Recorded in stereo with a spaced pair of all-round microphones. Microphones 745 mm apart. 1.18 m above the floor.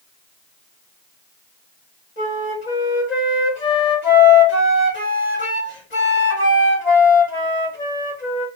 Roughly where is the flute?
Left.